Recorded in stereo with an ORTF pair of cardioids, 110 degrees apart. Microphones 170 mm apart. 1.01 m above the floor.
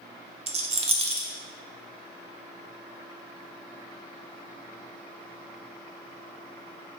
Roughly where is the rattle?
Ahead right.